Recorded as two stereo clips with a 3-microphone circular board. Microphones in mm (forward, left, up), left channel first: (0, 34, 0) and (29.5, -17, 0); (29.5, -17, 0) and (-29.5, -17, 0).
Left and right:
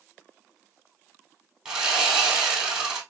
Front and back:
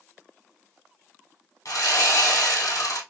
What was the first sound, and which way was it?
Sawing, 15° left.